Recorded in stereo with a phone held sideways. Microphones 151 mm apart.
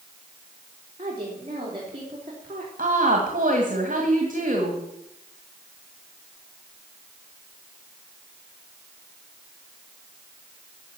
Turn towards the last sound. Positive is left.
turn(degrees=-60)  # may be behind; listen again after turning